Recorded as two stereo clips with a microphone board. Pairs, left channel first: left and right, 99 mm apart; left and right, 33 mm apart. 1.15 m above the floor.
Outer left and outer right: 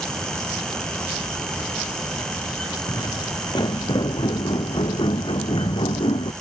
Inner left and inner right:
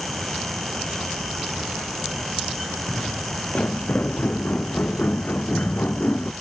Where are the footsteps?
50° left (ahead or behind); by 6.3 s 65° left (ahead or behind).